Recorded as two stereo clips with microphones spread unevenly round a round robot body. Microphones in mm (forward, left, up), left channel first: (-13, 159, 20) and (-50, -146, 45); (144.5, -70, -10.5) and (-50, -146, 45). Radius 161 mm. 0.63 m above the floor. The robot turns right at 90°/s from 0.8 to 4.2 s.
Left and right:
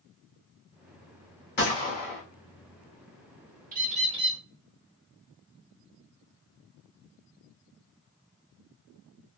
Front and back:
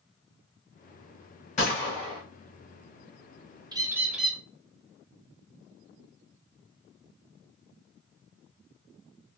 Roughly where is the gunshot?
Ahead left.